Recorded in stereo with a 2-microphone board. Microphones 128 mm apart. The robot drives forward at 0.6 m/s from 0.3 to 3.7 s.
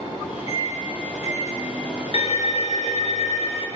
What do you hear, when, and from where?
0.5 s a microwave: 35° right (ahead or behind), 1.8 m; by 2.0 s 20° right (ahead or behind), 2.5 m
2.1 s a violin: 50° left (ahead or behind), 0.8 m